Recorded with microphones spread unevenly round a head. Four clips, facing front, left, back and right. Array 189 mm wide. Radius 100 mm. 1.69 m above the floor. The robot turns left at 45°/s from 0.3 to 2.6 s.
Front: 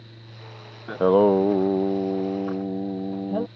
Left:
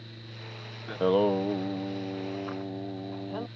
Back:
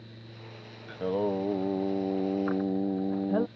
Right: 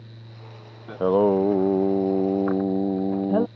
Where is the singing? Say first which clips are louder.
Right 5 dB, front 12 dB; 10° right; by 3.5 s 85° right.